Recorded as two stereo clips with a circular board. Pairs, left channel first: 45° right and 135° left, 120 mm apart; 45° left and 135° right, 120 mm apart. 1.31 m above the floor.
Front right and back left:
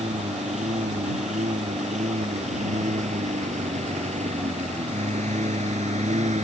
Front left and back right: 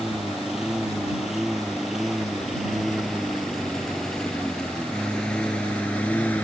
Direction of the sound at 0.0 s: 140° left.